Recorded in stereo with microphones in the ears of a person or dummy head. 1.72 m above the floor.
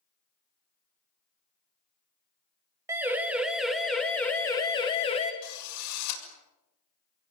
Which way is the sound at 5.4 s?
85° left.